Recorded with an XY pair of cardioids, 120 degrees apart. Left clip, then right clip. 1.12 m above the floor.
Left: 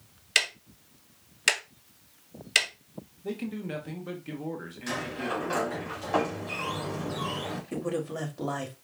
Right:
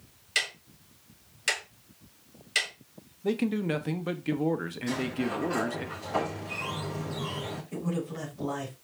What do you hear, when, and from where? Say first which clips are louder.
0.3 s ticking: left 4 dB; 45° left, 1.1 m
3.2 s a man speaking: right 7 dB; 45° right, 0.7 m
4.9 s a sliding door: left 1 dB; 60° left, 2.5 m
7.7 s a man speaking: left 4 dB; 55° left, 2 m